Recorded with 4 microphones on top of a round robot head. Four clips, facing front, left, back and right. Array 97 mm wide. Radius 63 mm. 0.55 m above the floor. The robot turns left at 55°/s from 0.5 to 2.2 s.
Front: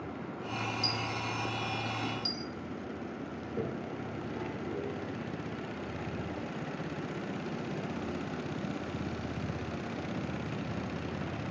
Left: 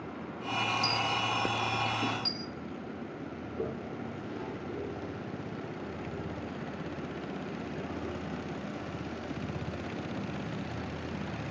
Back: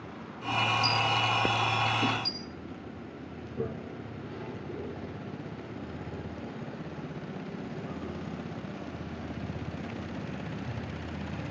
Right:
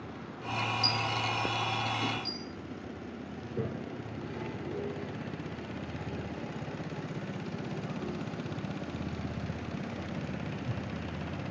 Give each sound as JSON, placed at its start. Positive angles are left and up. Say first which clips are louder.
{"t": 0.8, "sound": "a dropped coin", "louder": "left 1 dB, back 8 dB", "azimuth_deg": 145, "distance_m": 2.0}
{"t": 3.4, "sound": "a toilet flushing", "louder": "even, back 2 dB", "azimuth_deg": -45, "distance_m": 7.5}